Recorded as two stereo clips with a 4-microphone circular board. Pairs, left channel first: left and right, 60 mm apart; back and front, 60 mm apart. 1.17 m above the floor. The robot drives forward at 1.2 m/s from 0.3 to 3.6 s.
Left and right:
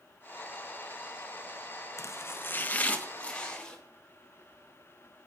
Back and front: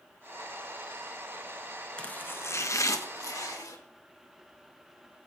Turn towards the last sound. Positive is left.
turn(degrees=165)